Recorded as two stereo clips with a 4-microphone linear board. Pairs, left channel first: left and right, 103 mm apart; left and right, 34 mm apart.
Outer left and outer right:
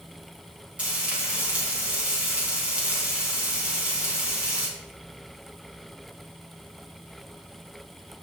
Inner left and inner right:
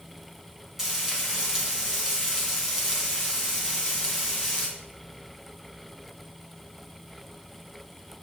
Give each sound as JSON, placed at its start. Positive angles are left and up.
{"t": 0.8, "sound": "frying", "side_deg": -10, "distance_m": 3.0}